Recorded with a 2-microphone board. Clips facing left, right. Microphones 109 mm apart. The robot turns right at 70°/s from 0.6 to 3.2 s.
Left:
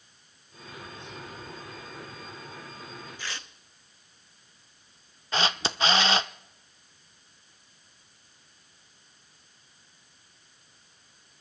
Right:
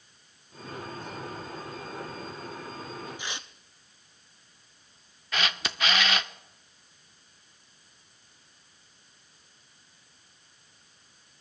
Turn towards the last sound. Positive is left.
turn(degrees=25)  # may be behind; listen again after turning